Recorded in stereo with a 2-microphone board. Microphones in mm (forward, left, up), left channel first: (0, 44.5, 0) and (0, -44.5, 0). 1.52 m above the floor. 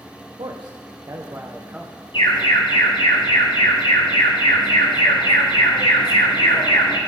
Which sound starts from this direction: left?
An alarm, at 2.1 s.